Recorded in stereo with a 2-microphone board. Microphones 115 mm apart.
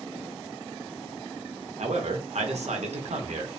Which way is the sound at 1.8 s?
80° right.